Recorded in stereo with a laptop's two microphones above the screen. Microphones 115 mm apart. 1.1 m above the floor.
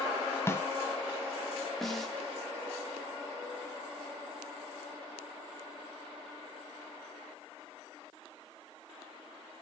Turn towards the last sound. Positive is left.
turn(degrees=0)  # may be behind; listen again after turning